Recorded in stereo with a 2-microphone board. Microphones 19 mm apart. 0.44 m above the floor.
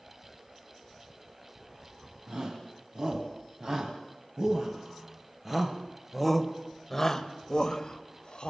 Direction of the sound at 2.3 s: 40° right (ahead or behind).